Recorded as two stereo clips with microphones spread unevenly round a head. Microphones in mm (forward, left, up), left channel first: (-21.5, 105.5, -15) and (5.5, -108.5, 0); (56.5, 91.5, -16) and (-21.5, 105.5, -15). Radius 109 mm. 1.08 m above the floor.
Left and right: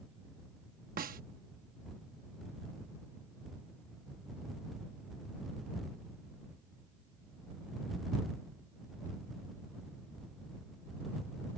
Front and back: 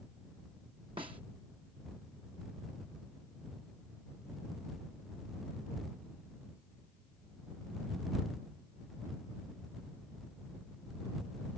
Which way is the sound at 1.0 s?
135° right.